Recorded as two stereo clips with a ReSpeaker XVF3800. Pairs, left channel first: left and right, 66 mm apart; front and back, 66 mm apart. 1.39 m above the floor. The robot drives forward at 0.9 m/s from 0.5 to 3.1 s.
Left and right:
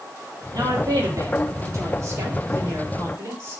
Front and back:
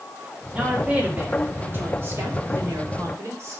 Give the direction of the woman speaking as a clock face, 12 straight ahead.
4 o'clock.